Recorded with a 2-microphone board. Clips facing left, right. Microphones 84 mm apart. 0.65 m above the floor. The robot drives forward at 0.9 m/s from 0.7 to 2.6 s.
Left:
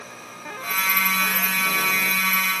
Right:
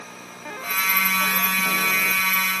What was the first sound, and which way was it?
Only background noise.